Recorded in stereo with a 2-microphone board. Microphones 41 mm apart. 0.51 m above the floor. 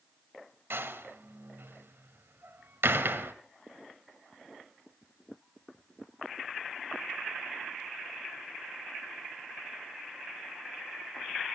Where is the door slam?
75° right (ahead or behind), 1.7 m.